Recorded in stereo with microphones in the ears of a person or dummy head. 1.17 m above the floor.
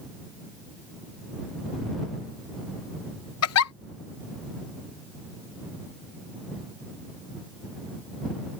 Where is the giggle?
70° left (ahead or behind).